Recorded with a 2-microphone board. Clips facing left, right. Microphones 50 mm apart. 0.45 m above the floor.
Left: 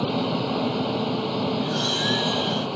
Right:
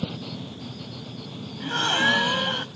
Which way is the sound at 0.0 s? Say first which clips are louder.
Left 10 dB; 85° left.